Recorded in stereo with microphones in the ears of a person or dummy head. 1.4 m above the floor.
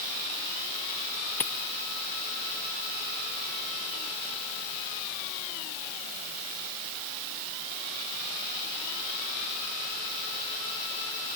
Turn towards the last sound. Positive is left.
turn(degrees=0)  # may be behind; listen again after turning